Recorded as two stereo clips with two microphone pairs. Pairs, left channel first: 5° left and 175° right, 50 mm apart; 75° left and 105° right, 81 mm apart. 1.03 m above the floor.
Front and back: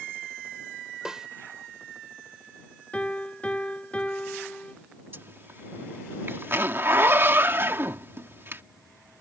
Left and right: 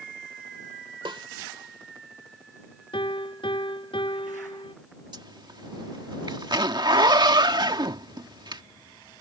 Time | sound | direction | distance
1.1 | a snare drum | 100° right | ?
2.9 | a piano | 70° left | ?
5.1 | a zipper | 135° right | ?